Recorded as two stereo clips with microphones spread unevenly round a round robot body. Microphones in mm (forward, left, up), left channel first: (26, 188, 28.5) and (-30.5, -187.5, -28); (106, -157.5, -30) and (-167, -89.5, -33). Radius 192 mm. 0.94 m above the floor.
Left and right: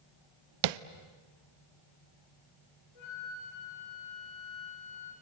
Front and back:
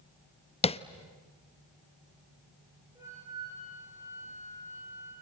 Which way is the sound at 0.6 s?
85° right.